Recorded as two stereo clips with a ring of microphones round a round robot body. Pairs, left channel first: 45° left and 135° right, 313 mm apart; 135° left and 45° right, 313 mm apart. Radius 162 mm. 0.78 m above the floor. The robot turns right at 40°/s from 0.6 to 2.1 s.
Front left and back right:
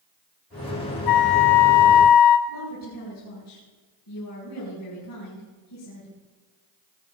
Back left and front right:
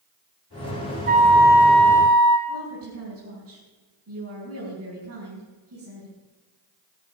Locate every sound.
1.1 s a flute: 20° left, 1.4 m; by 2.4 s 60° left, 1.4 m
2.5 s a woman speaking: 5° left, 6 m